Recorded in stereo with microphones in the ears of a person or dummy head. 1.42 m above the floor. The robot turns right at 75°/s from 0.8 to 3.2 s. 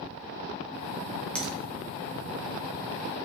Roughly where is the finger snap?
Centre.